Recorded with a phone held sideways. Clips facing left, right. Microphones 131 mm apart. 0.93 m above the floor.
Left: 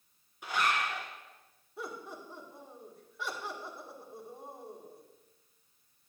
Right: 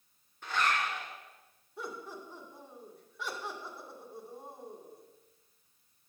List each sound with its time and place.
0.4 s a zipper: 10° left (ahead or behind), 1.9 m
1.8 s laughter: centre (ahead or behind), 2 m